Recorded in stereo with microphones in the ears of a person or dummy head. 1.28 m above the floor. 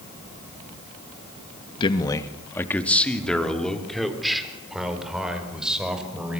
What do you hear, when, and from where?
1.8 s a man speaking: 25° left (ahead or behind), 1.9 m; by 6.4 s 5° right (ahead or behind), 6.5 m